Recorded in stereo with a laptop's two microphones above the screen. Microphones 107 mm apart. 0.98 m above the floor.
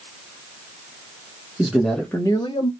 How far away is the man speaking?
About 1.2 m.